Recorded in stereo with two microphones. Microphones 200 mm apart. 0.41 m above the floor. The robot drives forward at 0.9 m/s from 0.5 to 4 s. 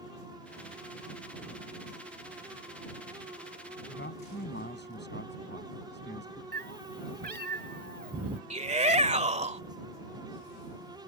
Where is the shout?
35° right (ahead or behind).